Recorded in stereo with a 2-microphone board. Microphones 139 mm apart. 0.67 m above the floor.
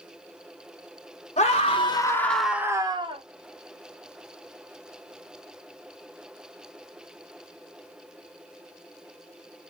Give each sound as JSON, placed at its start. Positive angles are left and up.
{"t": 1.4, "sound": "a scream", "side_deg": 50, "distance_m": 1.1}